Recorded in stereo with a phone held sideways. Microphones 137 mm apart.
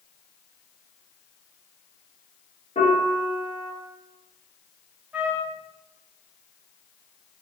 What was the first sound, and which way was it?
A piano, 55° left (ahead or behind).